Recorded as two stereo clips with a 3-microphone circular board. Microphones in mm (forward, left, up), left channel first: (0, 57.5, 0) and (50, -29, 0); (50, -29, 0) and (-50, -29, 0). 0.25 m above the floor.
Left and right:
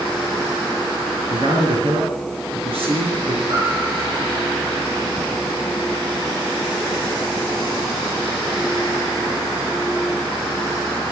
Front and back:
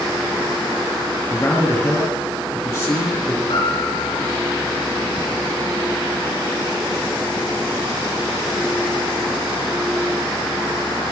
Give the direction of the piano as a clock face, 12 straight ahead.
12 o'clock.